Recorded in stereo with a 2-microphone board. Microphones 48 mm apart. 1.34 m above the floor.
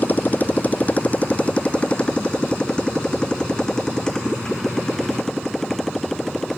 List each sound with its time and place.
0.0 s a motorcycle: 40° left (ahead or behind); by 6.6 s 5° left (ahead or behind)